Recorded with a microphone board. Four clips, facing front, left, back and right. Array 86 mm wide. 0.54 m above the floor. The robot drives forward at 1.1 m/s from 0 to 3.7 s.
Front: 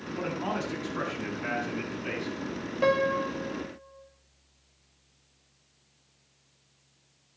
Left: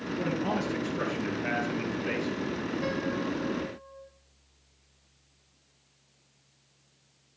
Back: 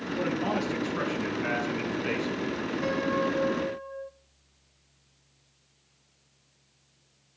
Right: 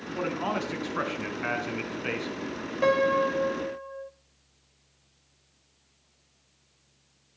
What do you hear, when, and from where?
0.1 s a man speaking: 75° right, 5 m; by 2.4 s 105° right, 5 m
2.8 s a piano: 45° right, 0.6 m; by 4.1 s 145° right, 0.7 m